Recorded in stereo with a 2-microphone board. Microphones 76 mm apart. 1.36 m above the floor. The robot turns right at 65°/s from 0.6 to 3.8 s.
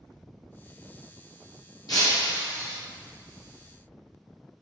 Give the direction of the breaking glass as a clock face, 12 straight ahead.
9 o'clock.